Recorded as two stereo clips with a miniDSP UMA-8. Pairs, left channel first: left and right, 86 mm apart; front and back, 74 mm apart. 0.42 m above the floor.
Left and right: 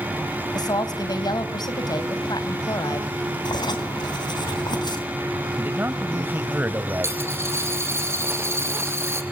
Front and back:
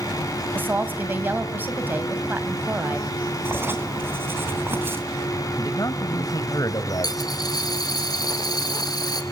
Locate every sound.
0.5 s a woman speaking: 120° left, 3 m
3.5 s writing: 120° left, 3.5 m
5.6 s a man speaking: 30° right, 2 m
7.0 s a dropped coin: 30° right, 2.5 m